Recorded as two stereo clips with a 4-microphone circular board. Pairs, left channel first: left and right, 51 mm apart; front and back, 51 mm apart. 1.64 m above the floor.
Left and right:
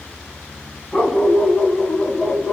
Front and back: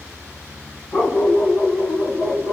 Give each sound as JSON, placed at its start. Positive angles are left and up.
{"t": 0.9, "sound": "a dog barking", "azimuth_deg": 25, "distance_m": 3.0}